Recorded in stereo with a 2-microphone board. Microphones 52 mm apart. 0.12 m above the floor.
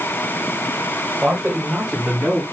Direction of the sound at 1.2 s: 5° right (ahead or behind).